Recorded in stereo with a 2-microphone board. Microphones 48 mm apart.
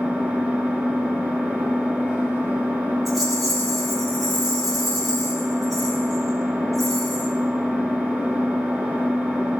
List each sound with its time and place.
0.0 s an engine running: 35° right (ahead or behind), 2.5 m
3.0 s a rattle: 5° right (ahead or behind), 4 m